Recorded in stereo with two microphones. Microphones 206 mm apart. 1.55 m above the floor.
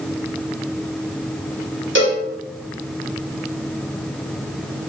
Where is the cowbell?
65° right (ahead or behind), 1.3 m.